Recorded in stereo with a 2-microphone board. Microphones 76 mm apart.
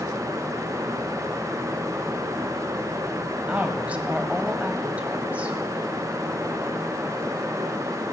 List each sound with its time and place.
3.5 s a woman speaking: 20° right (ahead or behind), 1.1 m